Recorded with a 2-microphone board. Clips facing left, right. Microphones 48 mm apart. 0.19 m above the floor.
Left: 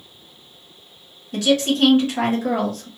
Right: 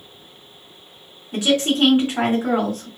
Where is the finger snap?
I don't hear a finger snap.